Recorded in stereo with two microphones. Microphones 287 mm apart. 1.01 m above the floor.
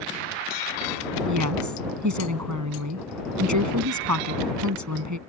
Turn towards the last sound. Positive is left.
turn(degrees=-80)